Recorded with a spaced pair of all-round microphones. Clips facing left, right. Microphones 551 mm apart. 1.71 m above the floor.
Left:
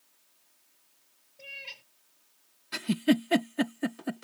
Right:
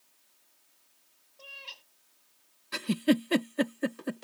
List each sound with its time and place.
1.4 s a cat meowing: 50° left (ahead or behind)
2.7 s a giggle: 10° left (ahead or behind)